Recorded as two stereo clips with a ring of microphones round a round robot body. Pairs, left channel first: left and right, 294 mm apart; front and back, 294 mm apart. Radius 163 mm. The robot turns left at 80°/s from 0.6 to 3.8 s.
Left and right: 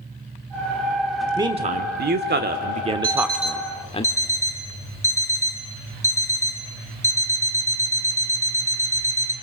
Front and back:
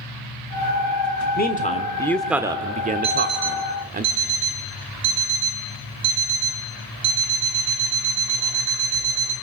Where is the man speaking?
20° right, 1.1 m; by 4.0 s 145° left, 1.1 m.